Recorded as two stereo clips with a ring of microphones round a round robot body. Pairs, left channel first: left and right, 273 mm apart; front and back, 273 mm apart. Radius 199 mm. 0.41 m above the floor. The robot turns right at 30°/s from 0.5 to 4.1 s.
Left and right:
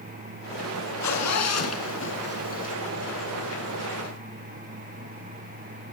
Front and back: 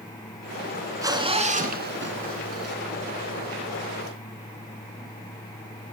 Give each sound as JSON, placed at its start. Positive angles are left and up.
{"t": 1.0, "sound": "a zipper", "azimuth_deg": 100, "distance_m": 4.5}